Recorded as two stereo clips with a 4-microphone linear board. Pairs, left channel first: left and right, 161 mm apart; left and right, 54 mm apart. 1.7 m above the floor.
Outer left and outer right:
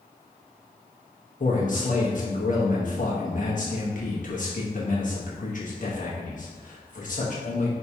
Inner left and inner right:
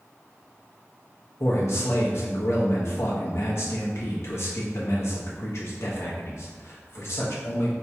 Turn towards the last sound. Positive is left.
turn(degrees=55)  # may be behind; listen again after turning